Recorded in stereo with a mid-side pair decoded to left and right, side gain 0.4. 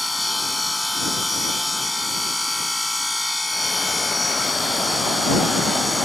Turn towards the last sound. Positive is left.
turn(degrees=10)